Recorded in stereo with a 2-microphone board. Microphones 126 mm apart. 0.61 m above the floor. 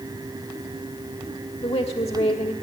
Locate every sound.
1.6 s a woman speaking: 50° left (ahead or behind), 1.2 m